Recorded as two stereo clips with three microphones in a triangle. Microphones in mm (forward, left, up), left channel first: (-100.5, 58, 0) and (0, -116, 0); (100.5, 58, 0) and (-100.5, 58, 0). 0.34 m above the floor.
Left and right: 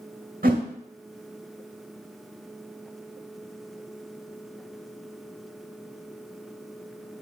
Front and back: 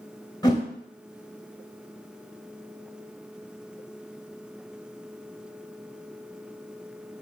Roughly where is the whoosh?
Ahead right.